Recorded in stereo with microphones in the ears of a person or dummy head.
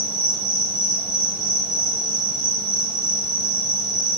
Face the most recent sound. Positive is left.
turn(degrees=-50)  # may be behind; listen again after turning